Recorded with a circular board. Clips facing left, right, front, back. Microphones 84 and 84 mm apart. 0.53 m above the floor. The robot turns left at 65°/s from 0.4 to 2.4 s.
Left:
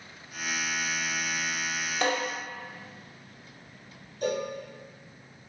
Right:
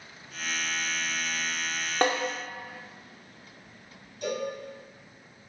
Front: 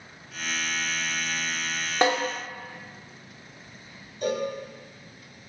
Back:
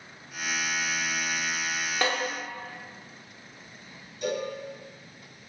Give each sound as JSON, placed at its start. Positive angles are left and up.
{"t": 2.0, "sound": "a snare drum", "azimuth_deg": -60, "distance_m": 0.8}
{"t": 4.2, "sound": "a cowbell", "azimuth_deg": 45, "distance_m": 0.8}